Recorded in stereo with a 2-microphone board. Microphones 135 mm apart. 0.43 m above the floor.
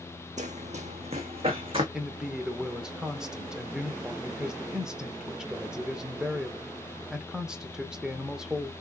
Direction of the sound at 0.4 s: 60° right (ahead or behind).